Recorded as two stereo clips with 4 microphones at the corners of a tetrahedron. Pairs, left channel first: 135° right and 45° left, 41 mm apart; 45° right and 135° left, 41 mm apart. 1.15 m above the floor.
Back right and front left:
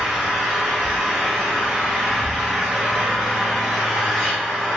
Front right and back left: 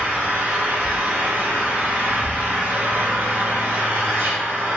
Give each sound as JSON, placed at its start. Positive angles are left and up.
{"t": 0.0, "sound": "an engine running", "azimuth_deg": 130, "distance_m": 1.2}